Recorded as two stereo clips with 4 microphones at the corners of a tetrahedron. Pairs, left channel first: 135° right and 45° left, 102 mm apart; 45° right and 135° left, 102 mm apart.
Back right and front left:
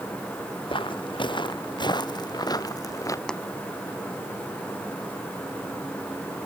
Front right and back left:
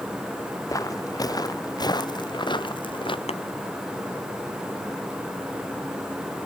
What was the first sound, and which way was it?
Footsteps, 100° right.